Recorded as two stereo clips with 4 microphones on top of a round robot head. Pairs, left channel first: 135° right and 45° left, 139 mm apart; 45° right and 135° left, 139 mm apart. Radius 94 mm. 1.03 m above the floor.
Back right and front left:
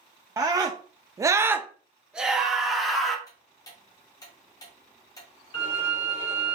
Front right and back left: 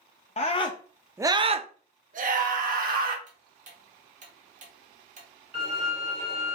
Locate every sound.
0.4 s a scream: 20° right, 0.7 m; by 3.2 s 130° left, 1.7 m
3.3 s ticking: 160° left, 0.8 m
5.5 s a violin: 170° left, 3 m